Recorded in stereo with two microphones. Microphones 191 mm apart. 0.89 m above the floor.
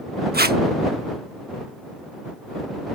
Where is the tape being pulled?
55° right (ahead or behind).